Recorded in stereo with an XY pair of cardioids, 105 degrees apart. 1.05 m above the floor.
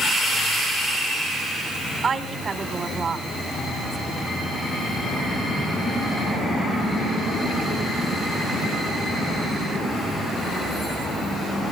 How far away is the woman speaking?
About 3 m.